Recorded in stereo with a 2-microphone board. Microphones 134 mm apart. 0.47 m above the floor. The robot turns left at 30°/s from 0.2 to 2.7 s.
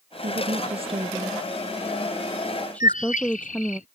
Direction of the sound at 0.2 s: 65° right (ahead or behind).